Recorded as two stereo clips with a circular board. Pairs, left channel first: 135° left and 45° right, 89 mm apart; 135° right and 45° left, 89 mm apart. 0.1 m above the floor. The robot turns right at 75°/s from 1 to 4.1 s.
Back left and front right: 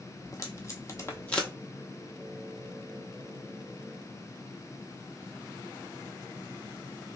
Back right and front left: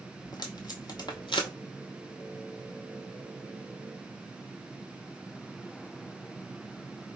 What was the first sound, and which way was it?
Tape being pulled, 175° right.